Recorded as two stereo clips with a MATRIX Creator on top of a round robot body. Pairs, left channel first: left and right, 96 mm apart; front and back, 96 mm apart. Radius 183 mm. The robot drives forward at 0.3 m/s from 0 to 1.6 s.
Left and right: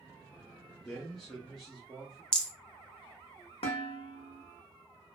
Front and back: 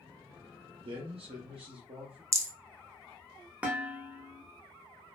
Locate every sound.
0.8 s a man speaking: 175° left, 0.6 m
2.3 s a rattle: 165° left, 1.2 m
3.6 s dishes clattering: 105° left, 0.8 m